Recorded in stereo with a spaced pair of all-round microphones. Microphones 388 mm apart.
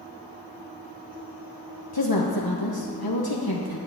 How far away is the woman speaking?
About 1.1 m.